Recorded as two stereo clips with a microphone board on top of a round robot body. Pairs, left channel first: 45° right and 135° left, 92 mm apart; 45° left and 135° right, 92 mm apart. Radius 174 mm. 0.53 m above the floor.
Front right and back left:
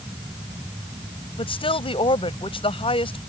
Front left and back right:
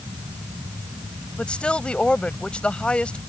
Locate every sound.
1.4 s a woman speaking: 35° right